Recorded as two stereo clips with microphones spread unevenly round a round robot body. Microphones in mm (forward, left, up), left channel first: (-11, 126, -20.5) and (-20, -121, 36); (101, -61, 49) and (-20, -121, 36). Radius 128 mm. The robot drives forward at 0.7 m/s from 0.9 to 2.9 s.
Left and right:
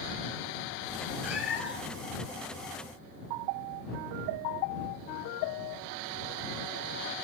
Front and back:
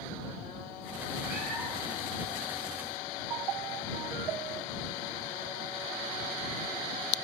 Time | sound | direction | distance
1.2 | a cat meowing | 135° left | 4.5 m